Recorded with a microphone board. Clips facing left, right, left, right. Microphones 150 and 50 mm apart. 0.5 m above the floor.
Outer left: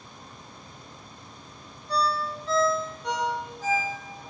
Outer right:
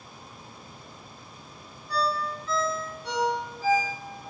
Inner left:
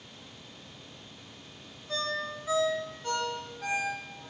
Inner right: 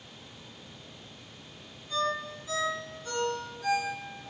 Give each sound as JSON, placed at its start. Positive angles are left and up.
{"t": 1.9, "sound": "a ringtone", "side_deg": 75, "distance_m": 1.2}